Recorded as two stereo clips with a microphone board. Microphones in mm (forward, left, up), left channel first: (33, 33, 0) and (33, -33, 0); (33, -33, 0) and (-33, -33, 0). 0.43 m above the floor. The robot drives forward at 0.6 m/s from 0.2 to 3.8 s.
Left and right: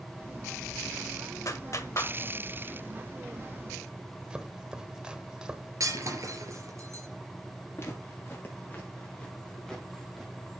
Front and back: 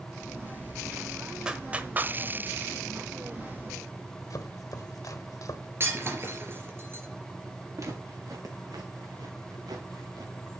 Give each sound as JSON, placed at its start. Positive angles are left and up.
{"t": 1.4, "sound": "a clap", "azimuth_deg": 105, "distance_m": 1.2}
{"t": 4.3, "sound": "chopping", "azimuth_deg": -15, "distance_m": 1.0}
{"t": 5.8, "sound": "breaking glass", "azimuth_deg": -125, "distance_m": 4.0}
{"t": 7.8, "sound": "footsteps", "azimuth_deg": 140, "distance_m": 4.5}